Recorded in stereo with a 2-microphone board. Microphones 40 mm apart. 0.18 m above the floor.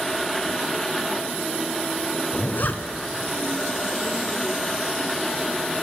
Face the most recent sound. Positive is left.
turn(degrees=45)  # may be behind; listen again after turning